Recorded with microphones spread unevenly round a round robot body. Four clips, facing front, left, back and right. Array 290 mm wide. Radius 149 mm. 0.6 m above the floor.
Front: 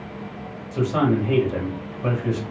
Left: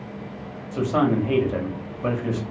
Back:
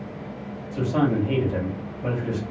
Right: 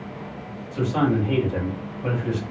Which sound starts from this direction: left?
A man speaking, at 0.7 s.